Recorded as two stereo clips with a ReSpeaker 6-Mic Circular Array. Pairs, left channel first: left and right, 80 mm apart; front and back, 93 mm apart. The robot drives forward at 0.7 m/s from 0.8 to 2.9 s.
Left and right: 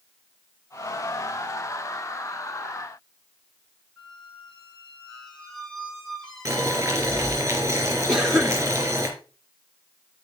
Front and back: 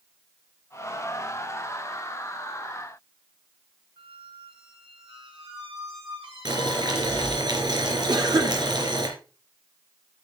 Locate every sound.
4.0 s a squeak: 175° left, 3 m
6.5 s boiling: 145° right, 4.5 m
8.1 s a cough: 170° right, 1.8 m